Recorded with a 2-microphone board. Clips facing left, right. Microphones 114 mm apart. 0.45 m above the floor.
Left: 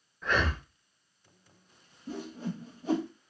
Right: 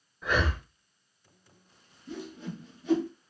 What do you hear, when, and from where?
0.2 s breathing: 5° right (ahead or behind), 0.5 m
2.1 s a whoosh: 40° left (ahead or behind), 0.7 m